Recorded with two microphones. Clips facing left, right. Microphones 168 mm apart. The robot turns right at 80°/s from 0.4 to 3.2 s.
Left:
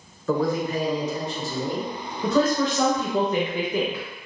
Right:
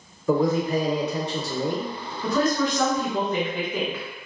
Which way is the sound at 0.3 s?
165° right.